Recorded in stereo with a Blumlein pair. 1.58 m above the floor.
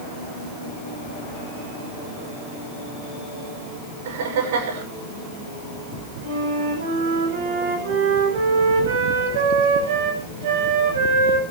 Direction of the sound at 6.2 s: 50° right.